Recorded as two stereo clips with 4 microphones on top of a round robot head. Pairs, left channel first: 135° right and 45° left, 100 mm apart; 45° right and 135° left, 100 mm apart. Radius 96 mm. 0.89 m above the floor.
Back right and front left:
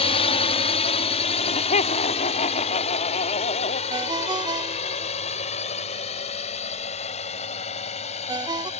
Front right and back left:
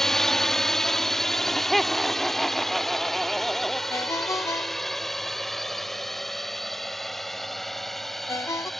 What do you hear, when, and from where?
0.0 s a drone: 130° right; by 8.8 s 135° right
1.3 s laughter: 135° right
3.9 s a ringtone: 10° left